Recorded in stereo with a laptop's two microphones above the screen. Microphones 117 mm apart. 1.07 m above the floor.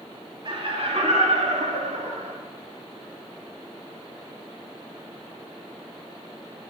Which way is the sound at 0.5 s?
45° right (ahead or behind).